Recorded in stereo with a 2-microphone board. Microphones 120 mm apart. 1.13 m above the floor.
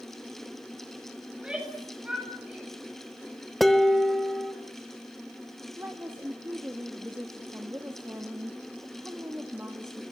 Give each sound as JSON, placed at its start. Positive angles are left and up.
{"t": 1.3, "sound": "a shout", "side_deg": -10, "distance_m": 8.5}
{"t": 3.6, "sound": "dishes clattering", "side_deg": 0, "distance_m": 1.2}
{"t": 5.8, "sound": "a woman speaking", "side_deg": -20, "distance_m": 2.0}